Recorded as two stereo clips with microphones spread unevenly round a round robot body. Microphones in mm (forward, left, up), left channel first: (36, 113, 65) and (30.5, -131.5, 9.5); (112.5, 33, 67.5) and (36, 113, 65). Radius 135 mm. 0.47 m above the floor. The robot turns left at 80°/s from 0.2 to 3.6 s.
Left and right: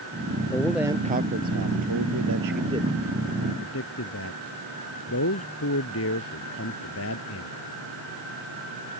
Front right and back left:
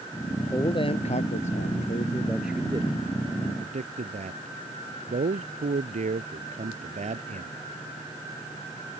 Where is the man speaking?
15° left; by 7.5 s 130° left.